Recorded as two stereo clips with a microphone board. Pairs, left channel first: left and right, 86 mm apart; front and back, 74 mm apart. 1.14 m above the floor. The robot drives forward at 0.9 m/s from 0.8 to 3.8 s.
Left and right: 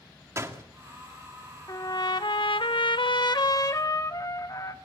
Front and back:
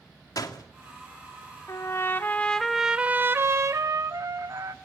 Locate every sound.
0.4 s a door slam: 35° right, 2 m
1.7 s a trumpet: 45° left, 1.3 m; by 4.7 s 135° left, 1.4 m